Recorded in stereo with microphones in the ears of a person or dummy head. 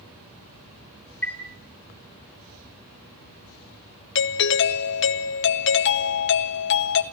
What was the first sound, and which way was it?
A chime, 10° left (ahead or behind).